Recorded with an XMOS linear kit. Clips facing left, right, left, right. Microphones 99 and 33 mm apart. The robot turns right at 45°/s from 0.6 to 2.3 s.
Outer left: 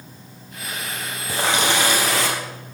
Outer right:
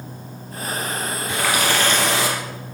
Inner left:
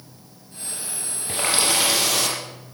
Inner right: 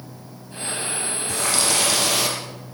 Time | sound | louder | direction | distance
1.3 | a running tap | outer left 1 dB, inner left 1 dB | 140° left | 3 m